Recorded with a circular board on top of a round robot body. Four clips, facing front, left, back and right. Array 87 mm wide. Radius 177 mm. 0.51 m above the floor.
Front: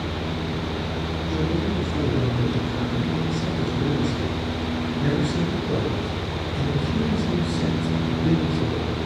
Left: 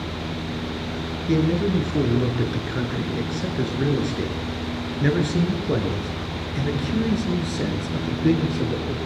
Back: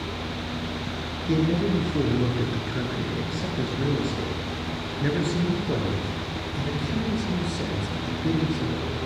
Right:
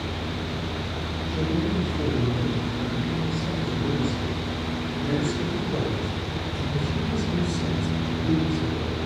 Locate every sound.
1.3 s a man speaking: 115° left, 8.5 m; by 9.0 s 80° left, 9.5 m